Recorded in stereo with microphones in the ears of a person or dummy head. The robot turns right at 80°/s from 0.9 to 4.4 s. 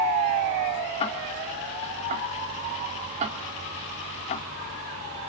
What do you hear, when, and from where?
1.0 s ticking: 40° left (ahead or behind), 1.7 m; by 4.5 s 50° left (ahead or behind), 1.7 m